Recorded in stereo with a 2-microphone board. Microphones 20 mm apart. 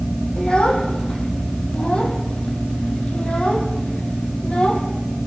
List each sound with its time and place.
0.4 s a child speaking: 65° left (ahead or behind), 7 m; by 4.8 s 80° left, 5.5 m